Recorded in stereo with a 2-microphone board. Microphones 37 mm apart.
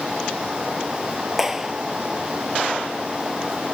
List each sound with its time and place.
1.4 s a clap: 10° right (ahead or behind)